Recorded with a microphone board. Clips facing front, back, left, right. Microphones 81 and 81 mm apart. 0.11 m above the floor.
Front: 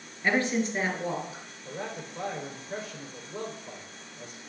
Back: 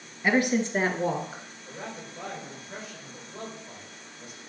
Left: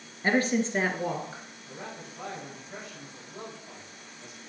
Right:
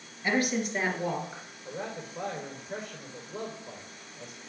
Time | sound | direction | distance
0.2 | a woman speaking | 105° left | 1.4 m
1.6 | a man speaking | 50° right | 4.5 m